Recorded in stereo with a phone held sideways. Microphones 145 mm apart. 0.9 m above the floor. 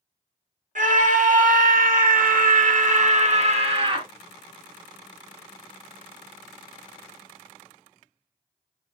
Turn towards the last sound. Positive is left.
turn(degrees=-30)  # may be behind; listen again after turning